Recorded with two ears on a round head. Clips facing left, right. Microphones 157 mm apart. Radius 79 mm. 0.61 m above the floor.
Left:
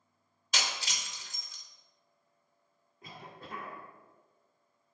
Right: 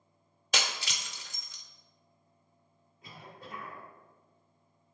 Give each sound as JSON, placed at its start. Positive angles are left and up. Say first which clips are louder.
{"t": 0.5, "sound": "breaking glass", "louder": "right 2 dB", "side_deg": -50, "distance_m": 0.6}
{"t": 3.0, "sound": "a cough", "louder": "left 1 dB", "side_deg": 40, "distance_m": 1.4}